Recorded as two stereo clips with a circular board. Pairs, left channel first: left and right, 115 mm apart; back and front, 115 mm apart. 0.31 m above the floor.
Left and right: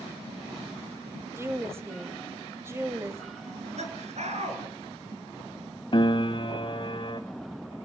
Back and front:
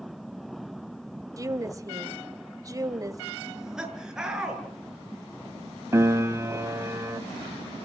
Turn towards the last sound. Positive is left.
turn(degrees=60)